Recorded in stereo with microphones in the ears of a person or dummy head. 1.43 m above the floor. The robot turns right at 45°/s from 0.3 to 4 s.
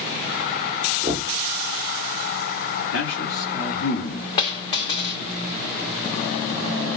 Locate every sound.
1.0 s knocking: 15° right (ahead or behind), 1.9 m; by 1.4 s centre (ahead or behind), 1.9 m
2.9 s a man speaking: 75° left (ahead or behind), 3 m; by 5.4 s 25° left (ahead or behind), 3 m
4.4 s a dropped coin: 25° left (ahead or behind), 2.0 m